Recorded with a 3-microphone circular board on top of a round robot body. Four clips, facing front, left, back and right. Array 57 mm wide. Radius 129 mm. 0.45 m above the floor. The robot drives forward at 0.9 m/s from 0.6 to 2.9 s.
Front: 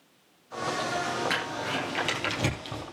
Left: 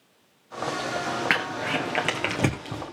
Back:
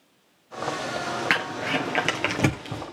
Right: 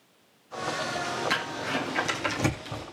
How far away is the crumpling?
About 2 m.